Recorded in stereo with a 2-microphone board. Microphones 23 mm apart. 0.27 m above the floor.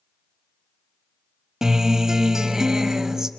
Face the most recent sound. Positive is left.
turn(degrees=-25)  # may be behind; listen again after turning